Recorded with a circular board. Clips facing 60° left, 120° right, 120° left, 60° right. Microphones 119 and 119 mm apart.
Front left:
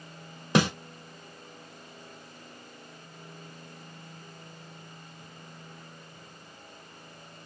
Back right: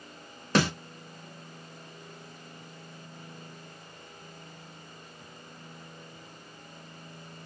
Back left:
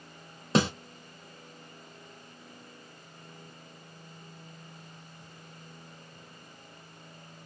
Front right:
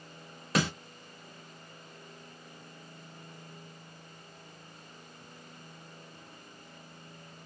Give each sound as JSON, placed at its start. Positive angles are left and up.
{"t": 0.6, "sound": "a snare drum", "azimuth_deg": 110, "distance_m": 1.3}